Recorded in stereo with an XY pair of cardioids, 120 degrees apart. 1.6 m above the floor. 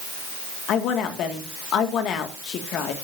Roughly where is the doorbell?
No doorbell in this recording.